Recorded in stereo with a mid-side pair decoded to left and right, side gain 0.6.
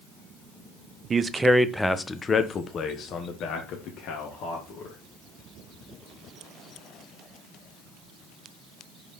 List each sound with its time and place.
1.1 s a man speaking: 30° right, 0.6 m; by 5.0 s 70° left, 1.9 m